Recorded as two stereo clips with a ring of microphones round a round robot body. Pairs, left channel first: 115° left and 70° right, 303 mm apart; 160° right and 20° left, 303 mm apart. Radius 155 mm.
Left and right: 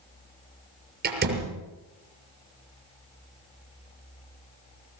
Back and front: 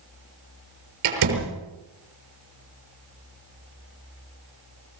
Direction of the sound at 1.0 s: 10° right.